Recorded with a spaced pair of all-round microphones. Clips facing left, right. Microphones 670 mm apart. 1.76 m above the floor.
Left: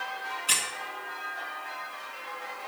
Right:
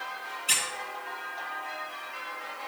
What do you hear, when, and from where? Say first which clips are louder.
0.5 s a squeak: right 2 dB; 10° left (ahead or behind), 1.4 m